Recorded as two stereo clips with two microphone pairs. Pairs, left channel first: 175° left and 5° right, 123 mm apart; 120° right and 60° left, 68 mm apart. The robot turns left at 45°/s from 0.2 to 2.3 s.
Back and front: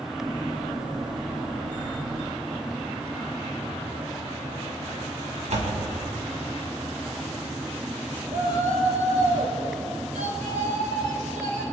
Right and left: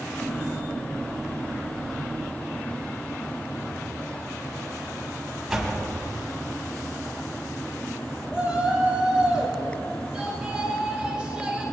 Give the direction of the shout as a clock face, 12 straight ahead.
1 o'clock.